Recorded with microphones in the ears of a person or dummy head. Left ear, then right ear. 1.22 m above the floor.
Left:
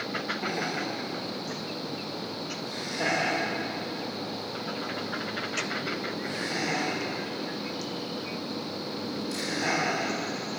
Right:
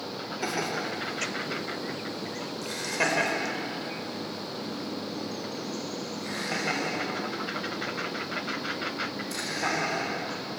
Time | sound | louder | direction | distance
0.4 | laughter | even | 80° right | 4.5 m